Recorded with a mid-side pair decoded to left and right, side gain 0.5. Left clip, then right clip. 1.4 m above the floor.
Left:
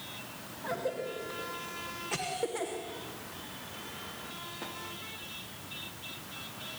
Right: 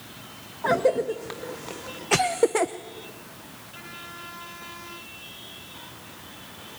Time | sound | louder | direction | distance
0.6 | a cough | right 13 dB | 65° right | 1.0 m